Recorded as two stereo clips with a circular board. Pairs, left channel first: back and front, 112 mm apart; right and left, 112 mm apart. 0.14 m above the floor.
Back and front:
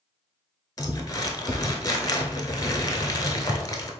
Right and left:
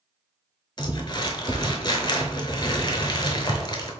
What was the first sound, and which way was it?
Crumpling, 130° right.